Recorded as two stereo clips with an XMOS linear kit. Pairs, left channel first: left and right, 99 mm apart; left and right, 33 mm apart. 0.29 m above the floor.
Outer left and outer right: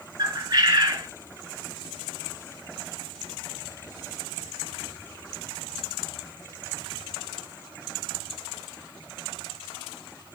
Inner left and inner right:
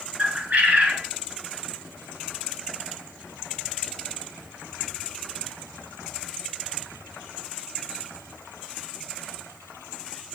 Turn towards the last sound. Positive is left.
turn(degrees=-40)  # may be behind; listen again after turning